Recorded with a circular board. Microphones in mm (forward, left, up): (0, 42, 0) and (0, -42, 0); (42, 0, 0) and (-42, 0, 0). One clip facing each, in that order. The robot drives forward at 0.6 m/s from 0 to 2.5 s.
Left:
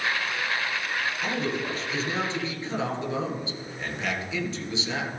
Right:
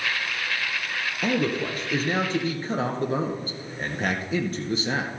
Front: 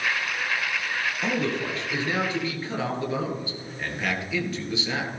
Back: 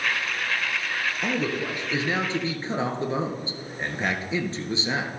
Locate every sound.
1.2 s a man speaking: 100° right, 1.8 m; by 5.1 s 125° right, 2.0 m